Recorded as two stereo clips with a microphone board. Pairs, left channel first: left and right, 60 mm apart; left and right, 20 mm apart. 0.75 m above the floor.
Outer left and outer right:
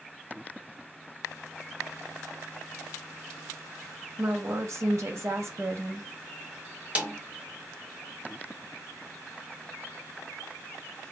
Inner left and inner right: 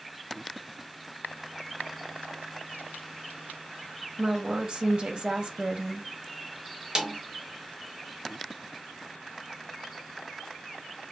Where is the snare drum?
25° right (ahead or behind), 0.9 m.